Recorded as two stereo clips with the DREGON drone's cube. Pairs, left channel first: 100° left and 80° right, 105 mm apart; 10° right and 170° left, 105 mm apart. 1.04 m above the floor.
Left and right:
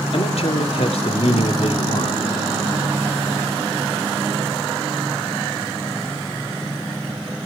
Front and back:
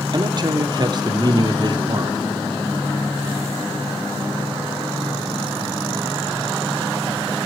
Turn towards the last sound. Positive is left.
turn(degrees=125)